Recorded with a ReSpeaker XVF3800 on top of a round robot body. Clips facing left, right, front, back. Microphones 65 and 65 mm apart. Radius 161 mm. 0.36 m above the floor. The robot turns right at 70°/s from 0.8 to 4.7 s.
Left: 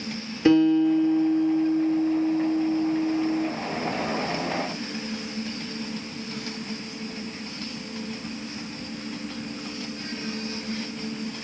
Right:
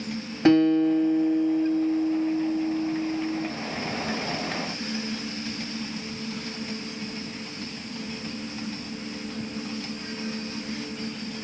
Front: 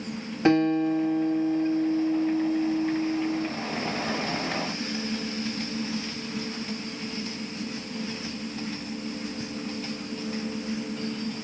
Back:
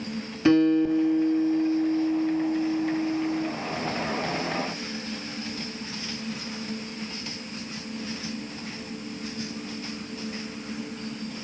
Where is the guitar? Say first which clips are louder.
Even, back 2 dB; 50° right, 3 m; by 3.5 s 140° left, 3 m.